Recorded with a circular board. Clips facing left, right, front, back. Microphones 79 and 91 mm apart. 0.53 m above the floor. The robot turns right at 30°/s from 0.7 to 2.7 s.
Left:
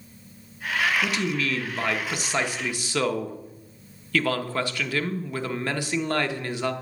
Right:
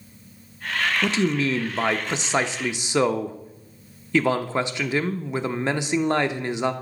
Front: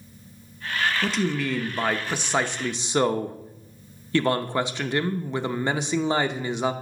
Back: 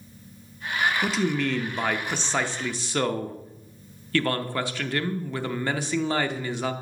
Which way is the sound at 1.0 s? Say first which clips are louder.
Right 4 dB, even; 100° right.